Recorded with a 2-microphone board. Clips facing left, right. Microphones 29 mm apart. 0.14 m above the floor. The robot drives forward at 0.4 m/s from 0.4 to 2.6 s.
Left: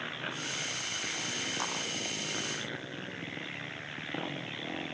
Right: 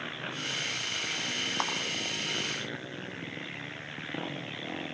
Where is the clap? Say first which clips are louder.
Right 6 dB; 50° right (ahead or behind), 6 m.